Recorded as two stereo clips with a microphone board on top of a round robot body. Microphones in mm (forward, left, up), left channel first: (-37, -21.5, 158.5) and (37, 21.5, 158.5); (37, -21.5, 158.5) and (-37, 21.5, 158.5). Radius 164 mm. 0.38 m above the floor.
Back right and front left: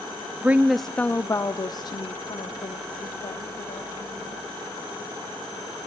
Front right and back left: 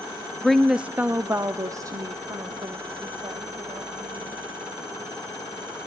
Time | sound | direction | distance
0.4 | a woman speaking | 45° left | 0.9 m